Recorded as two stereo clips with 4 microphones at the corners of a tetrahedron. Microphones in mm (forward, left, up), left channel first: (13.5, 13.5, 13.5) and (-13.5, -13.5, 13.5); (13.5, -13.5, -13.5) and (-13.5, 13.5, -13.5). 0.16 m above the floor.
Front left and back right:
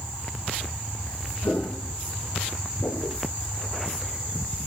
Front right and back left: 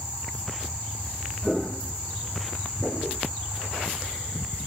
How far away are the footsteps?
About 1.7 m.